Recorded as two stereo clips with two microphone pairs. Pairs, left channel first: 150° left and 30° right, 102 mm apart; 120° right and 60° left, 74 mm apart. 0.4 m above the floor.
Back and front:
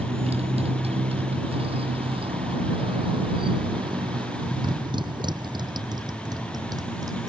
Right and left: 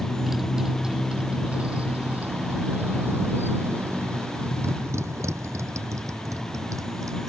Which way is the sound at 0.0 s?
25° right.